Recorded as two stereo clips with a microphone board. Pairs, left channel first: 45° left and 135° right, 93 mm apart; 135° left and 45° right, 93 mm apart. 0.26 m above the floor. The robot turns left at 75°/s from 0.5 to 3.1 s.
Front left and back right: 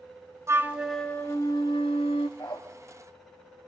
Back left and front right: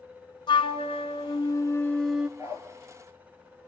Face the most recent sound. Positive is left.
turn(degrees=-40)